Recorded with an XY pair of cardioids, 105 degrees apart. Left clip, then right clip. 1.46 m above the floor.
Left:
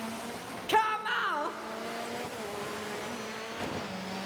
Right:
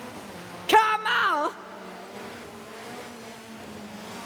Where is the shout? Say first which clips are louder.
Right 8 dB; 55° right, 0.7 m.